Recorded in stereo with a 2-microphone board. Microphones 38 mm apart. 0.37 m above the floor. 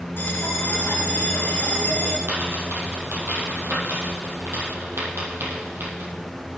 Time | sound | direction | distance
0.2 | a bell | 65° left (ahead or behind) | 2.5 m
2.3 | a dropped coin | 85° right | 6 m